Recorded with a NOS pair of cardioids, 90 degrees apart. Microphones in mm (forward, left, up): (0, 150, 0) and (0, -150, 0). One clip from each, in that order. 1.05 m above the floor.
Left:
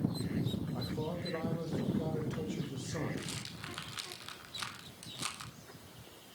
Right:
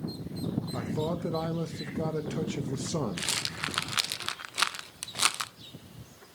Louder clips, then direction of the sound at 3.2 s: Right 12 dB; 65° right.